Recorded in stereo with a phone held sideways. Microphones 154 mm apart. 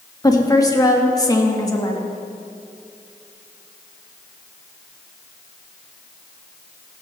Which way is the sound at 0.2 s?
25° left (ahead or behind).